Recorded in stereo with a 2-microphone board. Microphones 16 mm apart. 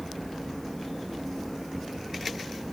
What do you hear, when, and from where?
Only background noise.